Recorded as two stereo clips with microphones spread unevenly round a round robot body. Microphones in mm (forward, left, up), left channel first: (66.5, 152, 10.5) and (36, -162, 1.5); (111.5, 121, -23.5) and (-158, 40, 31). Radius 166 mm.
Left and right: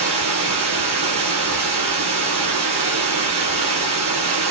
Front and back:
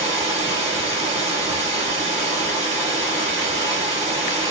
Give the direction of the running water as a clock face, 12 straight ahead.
3 o'clock.